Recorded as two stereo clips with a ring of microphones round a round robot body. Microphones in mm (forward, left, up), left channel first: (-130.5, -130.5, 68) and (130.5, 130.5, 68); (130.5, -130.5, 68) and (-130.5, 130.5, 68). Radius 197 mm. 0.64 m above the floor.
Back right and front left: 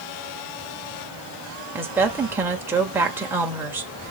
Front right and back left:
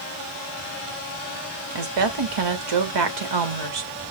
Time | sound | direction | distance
1.8 | a woman speaking | 130° left | 2 m